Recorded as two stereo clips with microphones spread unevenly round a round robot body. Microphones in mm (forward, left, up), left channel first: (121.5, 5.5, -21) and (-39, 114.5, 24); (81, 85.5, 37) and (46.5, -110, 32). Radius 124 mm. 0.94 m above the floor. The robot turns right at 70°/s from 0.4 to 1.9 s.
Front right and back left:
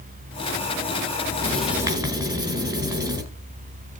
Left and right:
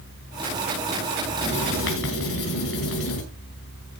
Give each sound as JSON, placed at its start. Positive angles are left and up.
{"t": 1.4, "sound": "writing", "azimuth_deg": 45, "distance_m": 5.5}